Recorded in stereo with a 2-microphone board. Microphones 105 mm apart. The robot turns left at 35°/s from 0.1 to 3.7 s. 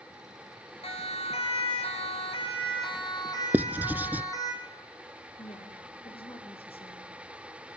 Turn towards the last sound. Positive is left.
turn(degrees=60)  # may be behind; listen again after turning